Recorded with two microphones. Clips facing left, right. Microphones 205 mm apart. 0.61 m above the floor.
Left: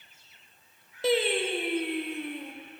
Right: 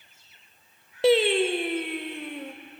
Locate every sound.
1.0 s singing: 70° right (ahead or behind), 0.7 m